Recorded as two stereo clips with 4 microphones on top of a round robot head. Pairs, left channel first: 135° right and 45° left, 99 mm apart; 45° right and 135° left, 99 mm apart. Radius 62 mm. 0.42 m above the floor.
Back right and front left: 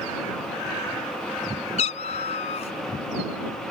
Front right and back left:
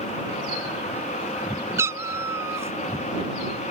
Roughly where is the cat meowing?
Behind.